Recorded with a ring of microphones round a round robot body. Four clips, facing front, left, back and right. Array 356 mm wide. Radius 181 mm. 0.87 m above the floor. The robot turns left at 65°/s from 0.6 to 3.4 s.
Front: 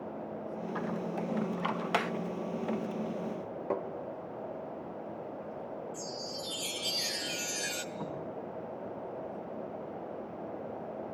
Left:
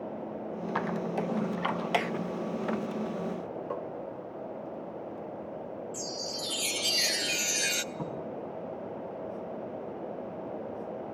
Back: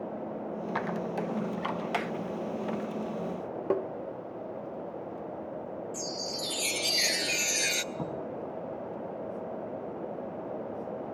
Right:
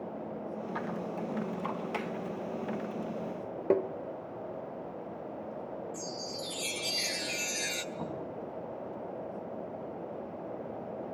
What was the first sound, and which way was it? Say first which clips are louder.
A squeak: left 7 dB, back 3 dB; 145° left.